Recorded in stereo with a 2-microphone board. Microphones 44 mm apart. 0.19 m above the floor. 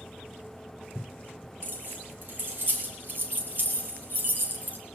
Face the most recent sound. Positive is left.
turn(degrees=-45)  # may be behind; listen again after turning